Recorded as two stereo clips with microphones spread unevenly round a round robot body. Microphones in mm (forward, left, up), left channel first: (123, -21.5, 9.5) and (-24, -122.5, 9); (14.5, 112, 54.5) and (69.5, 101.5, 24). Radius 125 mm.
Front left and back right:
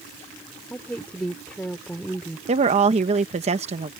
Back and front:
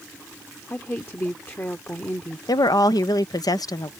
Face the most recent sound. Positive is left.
turn(degrees=175)